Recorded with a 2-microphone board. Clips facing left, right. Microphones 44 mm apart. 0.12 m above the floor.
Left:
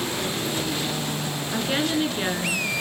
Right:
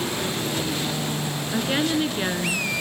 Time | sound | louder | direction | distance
1.5 | a woman speaking | right 1 dB | 5° right (ahead or behind) | 1.3 m